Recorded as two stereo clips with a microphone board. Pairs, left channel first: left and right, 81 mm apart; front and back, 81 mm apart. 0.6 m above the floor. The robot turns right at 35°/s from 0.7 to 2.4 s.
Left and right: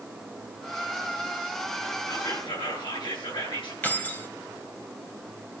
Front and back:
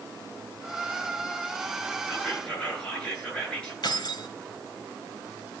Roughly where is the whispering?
Left.